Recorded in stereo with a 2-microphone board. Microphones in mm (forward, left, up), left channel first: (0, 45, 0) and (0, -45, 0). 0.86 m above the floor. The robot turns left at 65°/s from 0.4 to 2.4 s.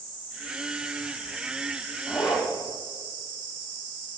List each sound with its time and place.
2.1 s a zipper: 25° left (ahead or behind), 2.5 m; by 2.5 s 50° left (ahead or behind), 2.5 m